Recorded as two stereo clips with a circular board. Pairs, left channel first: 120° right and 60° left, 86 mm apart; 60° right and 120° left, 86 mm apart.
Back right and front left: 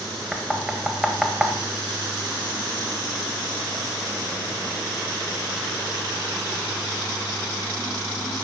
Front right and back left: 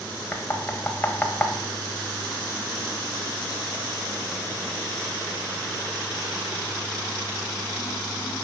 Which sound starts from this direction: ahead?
Knocking, at 0.3 s.